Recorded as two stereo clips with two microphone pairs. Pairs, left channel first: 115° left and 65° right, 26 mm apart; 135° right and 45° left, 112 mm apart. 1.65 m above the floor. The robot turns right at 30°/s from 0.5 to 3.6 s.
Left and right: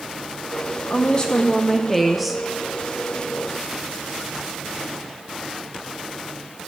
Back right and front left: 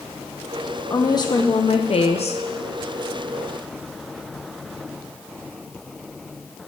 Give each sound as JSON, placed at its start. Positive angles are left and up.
{"t": 0.9, "sound": "a woman speaking", "azimuth_deg": 165, "distance_m": 0.9}